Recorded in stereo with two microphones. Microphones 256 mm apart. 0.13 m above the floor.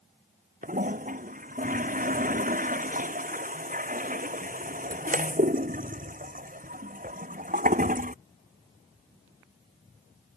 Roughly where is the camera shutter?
I don't hear a camera shutter.